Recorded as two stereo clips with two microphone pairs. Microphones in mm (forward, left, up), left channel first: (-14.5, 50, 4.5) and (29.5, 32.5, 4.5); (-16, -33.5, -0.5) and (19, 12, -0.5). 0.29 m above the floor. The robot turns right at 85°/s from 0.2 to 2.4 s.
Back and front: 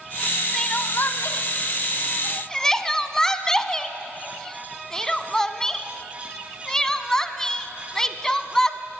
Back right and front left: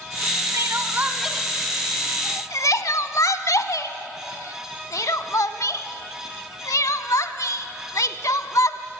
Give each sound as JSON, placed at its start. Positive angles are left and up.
{"t": 0.5, "sound": "crying", "azimuth_deg": 75, "distance_m": 0.8}